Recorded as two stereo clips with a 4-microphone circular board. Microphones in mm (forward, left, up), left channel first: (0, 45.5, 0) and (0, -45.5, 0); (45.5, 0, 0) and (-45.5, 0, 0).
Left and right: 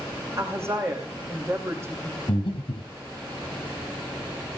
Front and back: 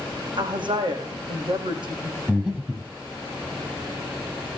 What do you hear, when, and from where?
0.4 s a woman speaking: 150° right, 6 m
2.3 s breathing: 100° left, 4 m